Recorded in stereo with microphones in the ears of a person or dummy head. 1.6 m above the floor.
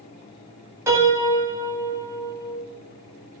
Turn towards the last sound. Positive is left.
turn(degrees=-15)  # may be behind; listen again after turning